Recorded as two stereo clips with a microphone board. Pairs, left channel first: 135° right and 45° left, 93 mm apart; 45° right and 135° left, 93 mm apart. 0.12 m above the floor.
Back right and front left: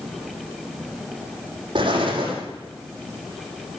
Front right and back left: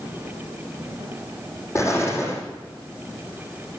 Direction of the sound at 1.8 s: 15° left.